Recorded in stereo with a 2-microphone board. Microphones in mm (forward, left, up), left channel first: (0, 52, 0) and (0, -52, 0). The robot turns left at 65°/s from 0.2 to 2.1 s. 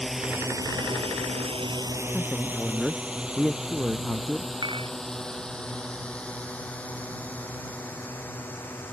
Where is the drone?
Centre (ahead or behind); by 8.9 s 20° left (ahead or behind).